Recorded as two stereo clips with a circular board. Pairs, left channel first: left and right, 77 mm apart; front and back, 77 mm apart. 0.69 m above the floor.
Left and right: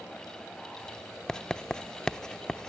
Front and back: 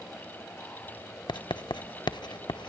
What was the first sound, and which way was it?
Writing, 10° left.